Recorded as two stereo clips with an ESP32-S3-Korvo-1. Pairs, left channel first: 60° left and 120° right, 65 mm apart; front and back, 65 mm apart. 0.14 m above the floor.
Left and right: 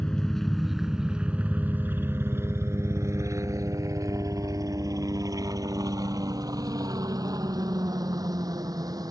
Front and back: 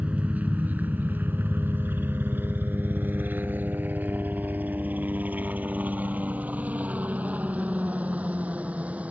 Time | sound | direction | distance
0.0 | a helicopter | 130° left | ?